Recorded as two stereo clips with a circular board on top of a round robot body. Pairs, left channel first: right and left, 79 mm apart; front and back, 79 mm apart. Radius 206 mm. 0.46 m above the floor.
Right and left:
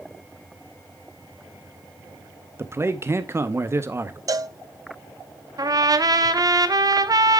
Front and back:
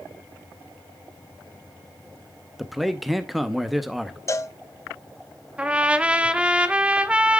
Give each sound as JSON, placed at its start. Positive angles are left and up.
{"t": 2.6, "sound": "a man speaking", "azimuth_deg": 90, "distance_m": 0.9}
{"t": 4.3, "sound": "a cowbell", "azimuth_deg": 50, "distance_m": 0.7}
{"t": 5.6, "sound": "a trumpet", "azimuth_deg": 105, "distance_m": 1.1}